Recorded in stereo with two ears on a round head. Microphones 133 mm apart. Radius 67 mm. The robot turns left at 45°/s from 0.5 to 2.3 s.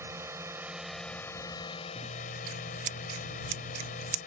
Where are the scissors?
45° right (ahead or behind); by 4.2 s 55° right (ahead or behind).